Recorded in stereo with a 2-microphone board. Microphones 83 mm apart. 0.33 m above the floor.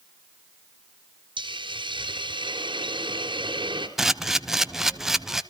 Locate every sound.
1.4 s a hiss: 80° right, 3.5 m
4.0 s a camera shutter: 5° right (ahead or behind), 1.0 m